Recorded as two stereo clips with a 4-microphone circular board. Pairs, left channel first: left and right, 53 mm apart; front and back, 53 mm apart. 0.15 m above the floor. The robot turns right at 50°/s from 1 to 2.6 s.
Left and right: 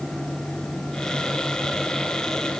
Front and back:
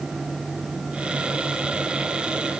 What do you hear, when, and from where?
Only background noise.